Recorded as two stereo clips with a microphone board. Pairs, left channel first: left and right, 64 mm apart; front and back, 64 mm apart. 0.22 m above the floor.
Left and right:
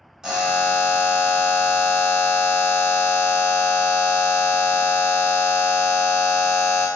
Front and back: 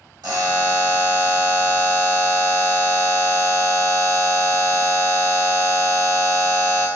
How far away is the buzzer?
About 0.9 m.